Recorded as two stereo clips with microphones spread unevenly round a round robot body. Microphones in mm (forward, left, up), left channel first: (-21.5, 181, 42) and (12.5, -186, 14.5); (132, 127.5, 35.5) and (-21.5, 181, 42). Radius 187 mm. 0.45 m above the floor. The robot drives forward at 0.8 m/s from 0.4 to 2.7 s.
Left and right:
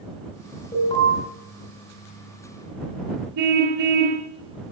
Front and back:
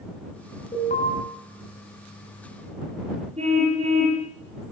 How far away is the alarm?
About 6.5 m.